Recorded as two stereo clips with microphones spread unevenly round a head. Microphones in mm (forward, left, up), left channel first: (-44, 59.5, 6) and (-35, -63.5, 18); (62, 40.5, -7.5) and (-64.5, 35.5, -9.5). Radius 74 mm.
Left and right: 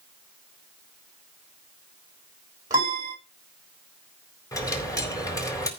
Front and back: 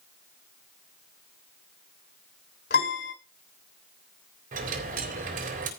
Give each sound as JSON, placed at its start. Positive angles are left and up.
{"t": 2.7, "sound": "a piano", "azimuth_deg": -15, "distance_m": 6.0}
{"t": 4.5, "sound": "a dropped coin", "azimuth_deg": 160, "distance_m": 4.5}